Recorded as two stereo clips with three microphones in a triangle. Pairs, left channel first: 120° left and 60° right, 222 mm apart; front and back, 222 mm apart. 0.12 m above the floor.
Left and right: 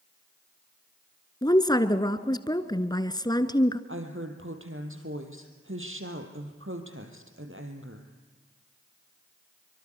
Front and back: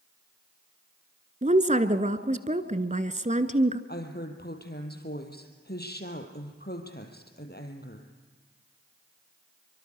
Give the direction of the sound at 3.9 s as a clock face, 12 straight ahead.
1 o'clock.